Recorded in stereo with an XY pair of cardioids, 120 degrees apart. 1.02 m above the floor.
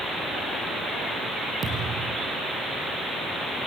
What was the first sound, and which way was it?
A thud, 40° right.